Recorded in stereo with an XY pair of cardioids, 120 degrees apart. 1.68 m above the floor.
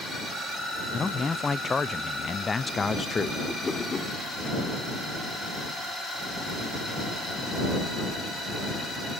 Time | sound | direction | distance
0.9 | a man speaking | 20° left | ?
3.5 | a whoosh | 20° left | ?